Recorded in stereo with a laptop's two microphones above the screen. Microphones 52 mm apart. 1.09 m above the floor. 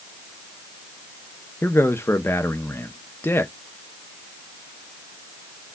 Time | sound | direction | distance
1.6 | a man speaking | 50° left (ahead or behind) | 0.7 m